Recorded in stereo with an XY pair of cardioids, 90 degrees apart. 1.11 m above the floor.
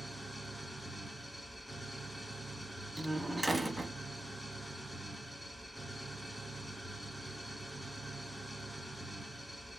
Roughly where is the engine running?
Ahead.